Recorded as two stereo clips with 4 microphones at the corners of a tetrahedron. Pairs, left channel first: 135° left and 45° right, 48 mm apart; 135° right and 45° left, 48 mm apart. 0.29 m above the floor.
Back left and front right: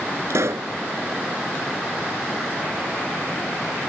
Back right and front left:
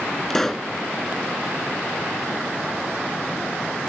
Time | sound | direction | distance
0.3 | a pop | 50° right | ?